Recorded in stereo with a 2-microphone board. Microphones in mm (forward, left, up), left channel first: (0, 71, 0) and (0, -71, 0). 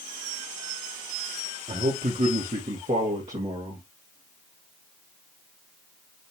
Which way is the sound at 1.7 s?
80° right.